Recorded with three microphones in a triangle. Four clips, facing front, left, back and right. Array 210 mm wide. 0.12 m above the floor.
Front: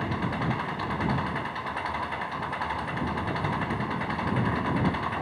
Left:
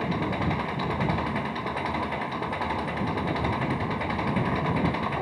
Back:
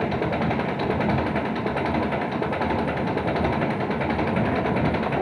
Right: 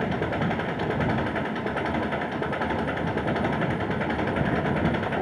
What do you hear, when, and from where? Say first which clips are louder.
0.0 s an engine running: right 1 dB, back 6 dB; 160° right